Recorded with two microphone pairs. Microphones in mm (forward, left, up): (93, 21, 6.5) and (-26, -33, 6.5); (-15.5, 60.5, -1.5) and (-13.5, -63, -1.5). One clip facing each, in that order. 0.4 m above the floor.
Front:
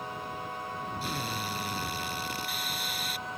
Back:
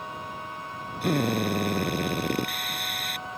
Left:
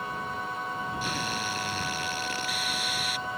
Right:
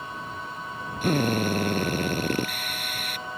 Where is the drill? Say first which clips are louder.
Back 15 dB, right 9 dB; 125° right.